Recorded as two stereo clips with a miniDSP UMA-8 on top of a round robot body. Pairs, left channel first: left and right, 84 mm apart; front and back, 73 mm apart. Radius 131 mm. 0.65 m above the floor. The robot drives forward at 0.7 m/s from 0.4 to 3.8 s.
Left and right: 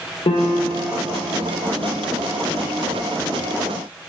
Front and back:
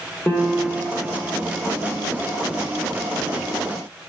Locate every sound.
0.3 s a piano: 70° left, 1.5 m; by 1.3 s 95° left, 1.4 m